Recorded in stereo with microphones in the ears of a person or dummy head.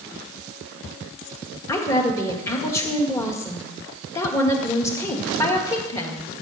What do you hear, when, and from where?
1.7 s a woman speaking: 20° left (ahead or behind), 1.7 m